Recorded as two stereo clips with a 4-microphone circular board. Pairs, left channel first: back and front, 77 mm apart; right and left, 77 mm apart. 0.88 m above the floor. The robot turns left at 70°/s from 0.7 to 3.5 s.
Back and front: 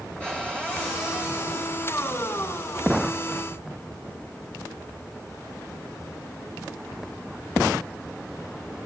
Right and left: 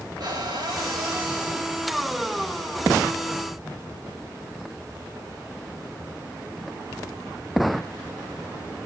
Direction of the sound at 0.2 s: 105° left.